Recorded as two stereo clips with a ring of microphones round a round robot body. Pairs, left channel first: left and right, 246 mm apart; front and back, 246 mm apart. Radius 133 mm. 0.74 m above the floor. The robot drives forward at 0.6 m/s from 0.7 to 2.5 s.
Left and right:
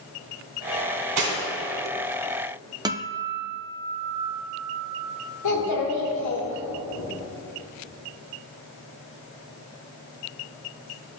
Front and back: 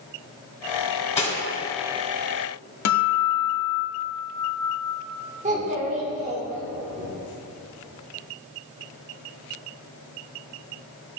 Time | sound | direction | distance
1.2 | cutlery clinking | 65° right | 1.8 m
2.9 | a guitar | 15° right | 0.7 m
5.4 | a child speaking | 115° left | 1.2 m